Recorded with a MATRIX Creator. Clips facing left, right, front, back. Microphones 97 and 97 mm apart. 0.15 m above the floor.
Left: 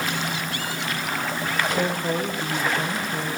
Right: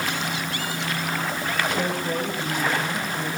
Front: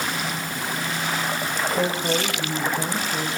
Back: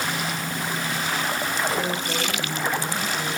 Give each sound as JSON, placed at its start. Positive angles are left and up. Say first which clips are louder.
{"t": 1.7, "sound": "a man speaking", "louder": "left 1 dB, front 3 dB", "azimuth_deg": 40, "distance_m": 7.0}